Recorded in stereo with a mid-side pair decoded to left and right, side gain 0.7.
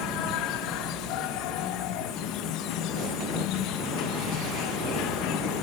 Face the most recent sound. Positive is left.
turn(degrees=60)